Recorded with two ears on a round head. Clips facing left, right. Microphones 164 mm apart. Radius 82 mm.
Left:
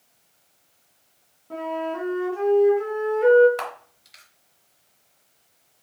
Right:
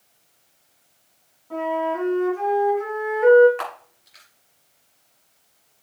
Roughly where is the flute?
Left.